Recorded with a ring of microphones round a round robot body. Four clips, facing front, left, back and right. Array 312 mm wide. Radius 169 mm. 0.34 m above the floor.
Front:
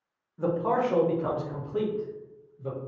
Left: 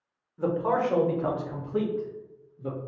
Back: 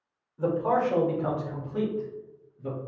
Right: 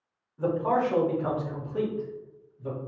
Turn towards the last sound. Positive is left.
turn(degrees=100)